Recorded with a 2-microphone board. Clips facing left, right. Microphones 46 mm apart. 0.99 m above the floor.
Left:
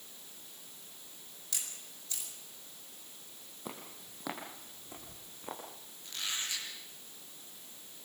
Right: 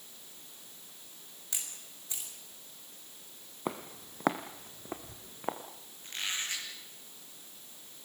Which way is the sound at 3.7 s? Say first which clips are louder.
Right 8 dB; 50° right (ahead or behind).